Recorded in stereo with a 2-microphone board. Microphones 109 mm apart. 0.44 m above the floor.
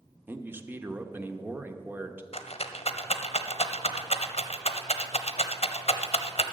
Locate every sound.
0.3 s a man speaking: 20° right (ahead or behind), 0.8 m
2.3 s a rattle: 70° left (ahead or behind), 0.8 m